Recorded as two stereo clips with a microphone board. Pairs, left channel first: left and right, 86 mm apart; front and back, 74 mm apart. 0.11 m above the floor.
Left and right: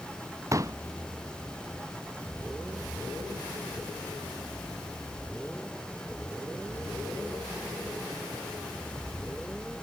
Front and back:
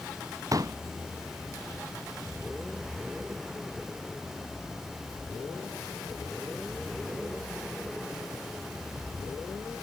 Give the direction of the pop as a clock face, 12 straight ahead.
5 o'clock.